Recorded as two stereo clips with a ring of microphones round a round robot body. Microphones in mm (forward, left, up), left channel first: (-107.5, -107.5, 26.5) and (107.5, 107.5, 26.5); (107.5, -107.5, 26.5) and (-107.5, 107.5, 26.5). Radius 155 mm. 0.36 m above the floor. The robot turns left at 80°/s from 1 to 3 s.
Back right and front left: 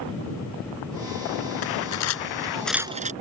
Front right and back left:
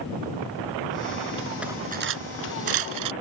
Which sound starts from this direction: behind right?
Cutlery clinking, at 1.6 s.